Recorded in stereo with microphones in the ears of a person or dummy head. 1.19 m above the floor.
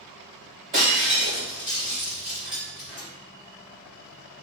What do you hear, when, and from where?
0.7 s breaking glass: 20° right (ahead or behind), 1.3 m